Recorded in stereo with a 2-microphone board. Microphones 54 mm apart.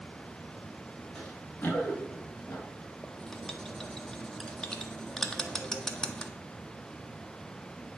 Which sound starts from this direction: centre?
Writing, at 3.0 s.